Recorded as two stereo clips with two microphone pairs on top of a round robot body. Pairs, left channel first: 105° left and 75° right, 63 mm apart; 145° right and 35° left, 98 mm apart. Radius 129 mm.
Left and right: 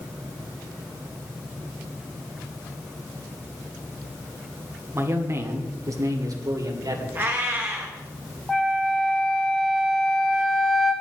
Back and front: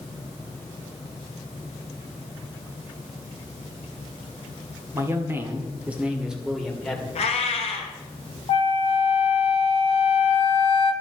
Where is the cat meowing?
135° right, 1.1 m.